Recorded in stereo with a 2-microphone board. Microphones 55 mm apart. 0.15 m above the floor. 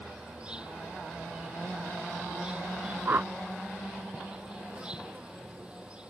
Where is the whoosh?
50° right (ahead or behind).